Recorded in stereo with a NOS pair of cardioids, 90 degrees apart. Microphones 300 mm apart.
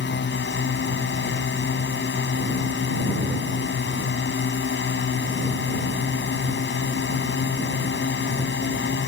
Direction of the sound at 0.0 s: 40° left.